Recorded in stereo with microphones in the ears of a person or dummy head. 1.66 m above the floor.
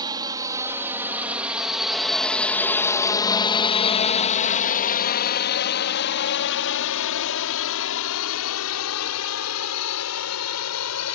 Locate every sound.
0.0 s a drone: 25° right (ahead or behind); by 11.2 s 80° left